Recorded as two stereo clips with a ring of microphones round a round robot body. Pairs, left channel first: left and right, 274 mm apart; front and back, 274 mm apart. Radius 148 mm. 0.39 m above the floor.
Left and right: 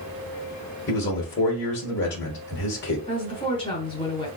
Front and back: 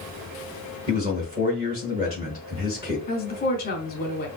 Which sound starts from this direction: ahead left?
A woman speaking, at 3.1 s.